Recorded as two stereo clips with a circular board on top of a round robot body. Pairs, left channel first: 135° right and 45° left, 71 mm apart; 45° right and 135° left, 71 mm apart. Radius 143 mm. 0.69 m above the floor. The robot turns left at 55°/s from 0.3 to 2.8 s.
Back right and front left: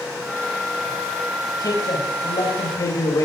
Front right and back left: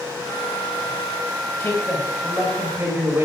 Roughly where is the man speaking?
Right.